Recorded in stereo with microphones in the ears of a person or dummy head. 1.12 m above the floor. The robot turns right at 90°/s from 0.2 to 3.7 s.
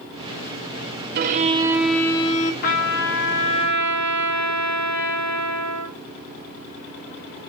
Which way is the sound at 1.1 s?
60° right.